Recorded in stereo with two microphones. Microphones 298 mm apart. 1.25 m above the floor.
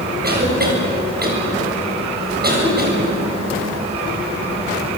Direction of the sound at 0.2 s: 30° right (ahead or behind).